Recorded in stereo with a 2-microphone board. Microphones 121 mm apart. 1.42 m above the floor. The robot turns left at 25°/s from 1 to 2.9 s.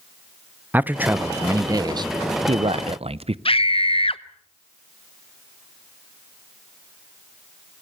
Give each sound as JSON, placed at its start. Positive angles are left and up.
{"t": 0.7, "sound": "a man speaking", "azimuth_deg": -15, "distance_m": 0.6}
{"t": 3.5, "sound": "a scream", "side_deg": 45, "distance_m": 0.8}